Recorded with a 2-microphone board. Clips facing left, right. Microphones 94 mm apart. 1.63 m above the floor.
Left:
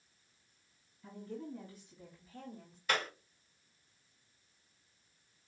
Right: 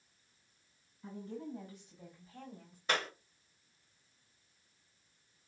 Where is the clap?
25° right (ahead or behind), 3 m.